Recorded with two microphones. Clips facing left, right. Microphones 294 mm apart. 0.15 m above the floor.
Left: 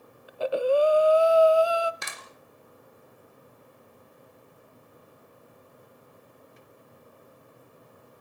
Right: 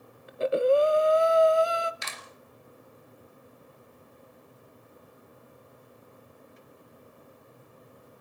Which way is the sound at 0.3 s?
25° right (ahead or behind).